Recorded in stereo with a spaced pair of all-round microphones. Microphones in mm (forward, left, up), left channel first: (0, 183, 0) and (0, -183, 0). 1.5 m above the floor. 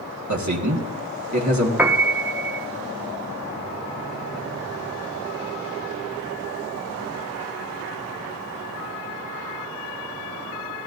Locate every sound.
0.3 s a man speaking: 55° right (ahead or behind), 1.6 m
1.8 s a piano: 5° right (ahead or behind), 0.5 m